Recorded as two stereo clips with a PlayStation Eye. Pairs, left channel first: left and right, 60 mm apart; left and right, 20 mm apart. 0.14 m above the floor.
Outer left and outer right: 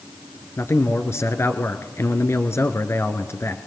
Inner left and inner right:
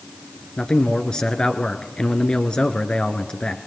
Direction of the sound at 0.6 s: 50° left (ahead or behind).